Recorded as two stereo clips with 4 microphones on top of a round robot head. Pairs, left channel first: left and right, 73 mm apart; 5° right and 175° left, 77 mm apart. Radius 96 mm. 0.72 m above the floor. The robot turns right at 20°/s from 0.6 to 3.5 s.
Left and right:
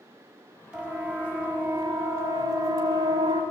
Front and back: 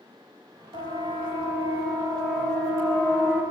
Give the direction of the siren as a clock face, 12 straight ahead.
6 o'clock.